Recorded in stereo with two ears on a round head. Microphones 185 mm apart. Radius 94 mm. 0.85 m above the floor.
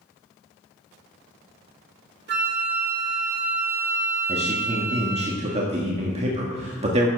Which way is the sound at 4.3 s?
35° right (ahead or behind).